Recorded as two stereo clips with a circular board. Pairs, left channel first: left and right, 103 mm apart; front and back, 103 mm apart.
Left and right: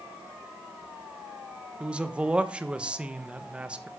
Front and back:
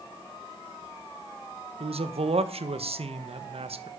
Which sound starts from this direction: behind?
A man speaking, at 1.8 s.